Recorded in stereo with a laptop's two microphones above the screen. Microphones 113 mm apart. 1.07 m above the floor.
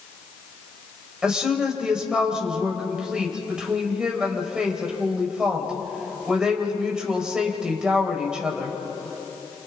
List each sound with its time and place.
1.2 s a woman speaking: 5° right (ahead or behind), 4.5 m